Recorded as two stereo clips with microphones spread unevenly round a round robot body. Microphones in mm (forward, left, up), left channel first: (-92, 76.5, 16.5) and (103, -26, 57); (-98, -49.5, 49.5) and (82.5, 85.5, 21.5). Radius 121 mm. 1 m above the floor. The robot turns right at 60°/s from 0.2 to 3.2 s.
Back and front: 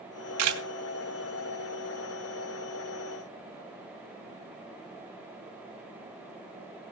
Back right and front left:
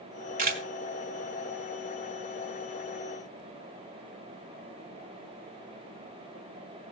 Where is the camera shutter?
20° right, 1.7 m; by 0.6 s 10° right, 1.7 m.